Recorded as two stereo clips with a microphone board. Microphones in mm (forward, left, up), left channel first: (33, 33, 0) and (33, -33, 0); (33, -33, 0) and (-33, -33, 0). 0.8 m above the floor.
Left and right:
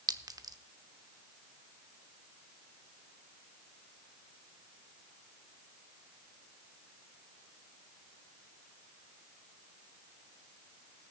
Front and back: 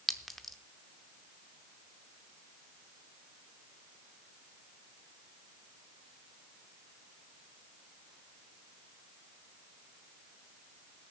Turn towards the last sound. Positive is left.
turn(degrees=-90)